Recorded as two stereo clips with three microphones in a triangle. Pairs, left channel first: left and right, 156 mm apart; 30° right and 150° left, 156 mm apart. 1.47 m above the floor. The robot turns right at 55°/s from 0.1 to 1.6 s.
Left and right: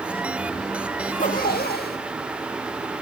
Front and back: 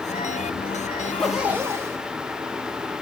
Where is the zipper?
45° left, 1.9 m; by 2.0 s 75° left, 1.9 m.